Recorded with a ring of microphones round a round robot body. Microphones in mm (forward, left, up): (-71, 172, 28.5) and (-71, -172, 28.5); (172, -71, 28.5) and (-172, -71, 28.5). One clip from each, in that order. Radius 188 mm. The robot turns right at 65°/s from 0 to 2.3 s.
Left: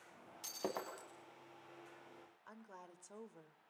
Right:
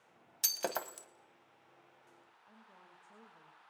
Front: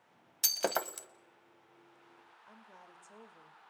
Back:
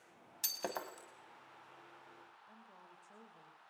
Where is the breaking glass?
65° right, 1.3 m; by 1.1 s 25° right, 1.3 m.